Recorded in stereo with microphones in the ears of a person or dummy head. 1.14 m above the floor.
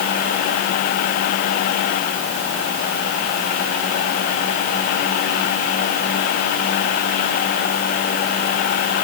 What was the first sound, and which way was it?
Only background noise.